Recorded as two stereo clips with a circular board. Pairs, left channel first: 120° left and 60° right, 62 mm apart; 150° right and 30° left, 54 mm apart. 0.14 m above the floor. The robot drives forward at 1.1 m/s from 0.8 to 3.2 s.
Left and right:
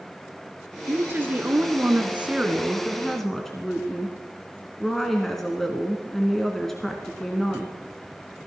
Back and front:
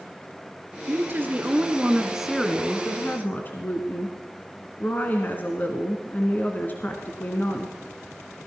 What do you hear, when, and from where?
0.9 s a woman speaking: 10° right, 2 m; by 7.7 s 160° right, 1.5 m